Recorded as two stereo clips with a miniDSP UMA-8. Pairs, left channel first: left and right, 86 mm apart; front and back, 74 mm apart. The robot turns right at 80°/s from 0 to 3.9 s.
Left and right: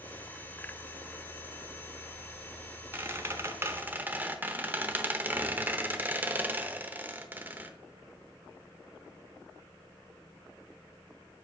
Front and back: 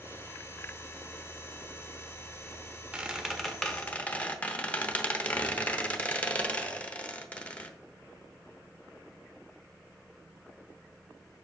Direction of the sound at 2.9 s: 130° right.